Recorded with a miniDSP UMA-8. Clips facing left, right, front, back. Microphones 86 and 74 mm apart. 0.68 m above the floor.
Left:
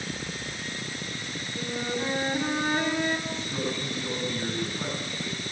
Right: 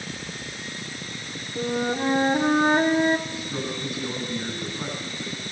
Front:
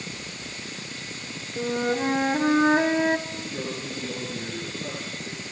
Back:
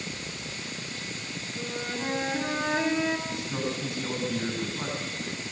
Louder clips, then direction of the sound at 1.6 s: Right 7 dB, front 10 dB; 50° right.